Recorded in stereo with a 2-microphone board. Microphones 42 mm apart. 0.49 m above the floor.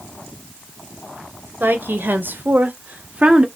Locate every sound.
1.6 s a woman speaking: 55° right (ahead or behind), 2.5 m; by 3.5 s 20° right (ahead or behind), 1.3 m